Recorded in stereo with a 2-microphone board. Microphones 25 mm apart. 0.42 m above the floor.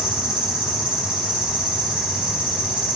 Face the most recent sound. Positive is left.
turn(degrees=-40)  # may be behind; listen again after turning